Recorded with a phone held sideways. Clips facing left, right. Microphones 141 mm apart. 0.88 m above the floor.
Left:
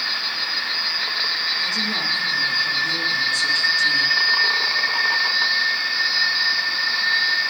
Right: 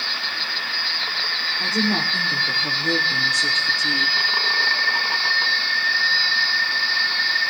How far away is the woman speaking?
About 3.5 m.